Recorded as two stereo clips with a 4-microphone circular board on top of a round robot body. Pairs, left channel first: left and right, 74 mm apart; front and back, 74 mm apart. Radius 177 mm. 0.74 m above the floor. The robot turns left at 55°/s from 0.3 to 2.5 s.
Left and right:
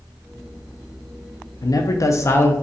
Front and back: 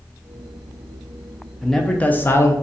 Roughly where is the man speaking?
Left.